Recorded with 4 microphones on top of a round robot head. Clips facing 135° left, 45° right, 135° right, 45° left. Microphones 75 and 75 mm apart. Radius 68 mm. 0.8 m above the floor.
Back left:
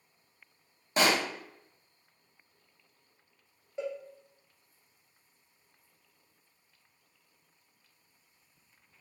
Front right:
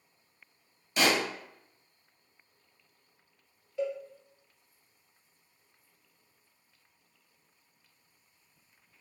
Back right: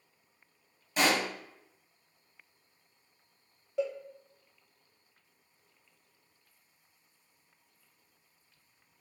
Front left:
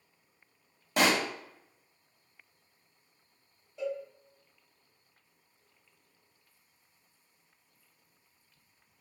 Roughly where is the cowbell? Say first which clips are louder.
Front right 4 dB, back right 2 dB; behind right.